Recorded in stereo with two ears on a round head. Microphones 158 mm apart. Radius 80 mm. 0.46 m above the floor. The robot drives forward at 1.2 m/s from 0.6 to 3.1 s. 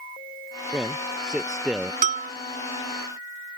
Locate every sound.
0.7 s a man speaking: 5° right (ahead or behind)
2.0 s a bell: 45° right (ahead or behind)